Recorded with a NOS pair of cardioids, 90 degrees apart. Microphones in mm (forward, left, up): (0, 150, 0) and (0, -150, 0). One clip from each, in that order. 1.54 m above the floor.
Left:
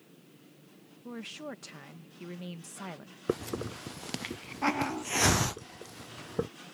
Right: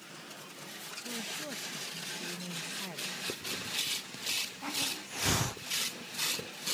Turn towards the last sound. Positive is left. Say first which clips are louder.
# left 2 dB
turn(degrees=55)